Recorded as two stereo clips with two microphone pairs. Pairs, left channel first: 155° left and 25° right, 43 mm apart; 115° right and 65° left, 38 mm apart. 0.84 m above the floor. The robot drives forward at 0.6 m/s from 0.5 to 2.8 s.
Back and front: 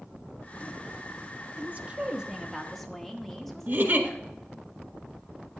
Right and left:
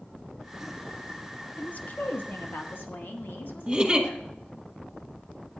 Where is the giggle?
Straight ahead, 1.5 m.